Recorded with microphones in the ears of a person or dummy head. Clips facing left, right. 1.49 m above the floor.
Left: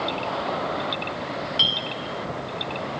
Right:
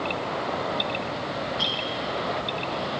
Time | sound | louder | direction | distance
1.6 | a clink | right 1 dB | 30° left (ahead or behind) | 0.8 m